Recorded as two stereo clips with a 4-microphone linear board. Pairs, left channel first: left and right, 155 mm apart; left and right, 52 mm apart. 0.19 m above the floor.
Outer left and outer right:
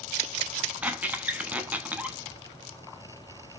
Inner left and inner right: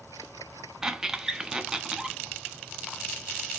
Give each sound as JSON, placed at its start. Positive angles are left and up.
{"t": 0.8, "sound": "a squeak", "side_deg": -10, "distance_m": 0.5}